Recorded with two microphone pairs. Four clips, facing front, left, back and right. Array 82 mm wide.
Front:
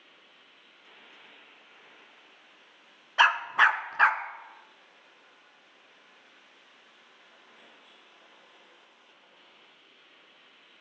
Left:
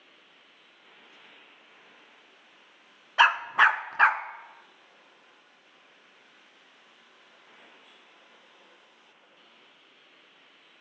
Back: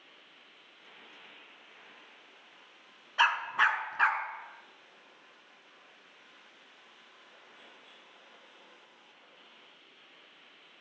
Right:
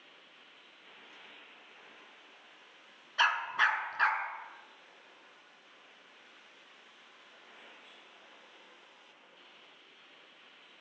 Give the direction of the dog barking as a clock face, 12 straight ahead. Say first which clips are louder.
Left 8 dB, front 5 dB; 10 o'clock.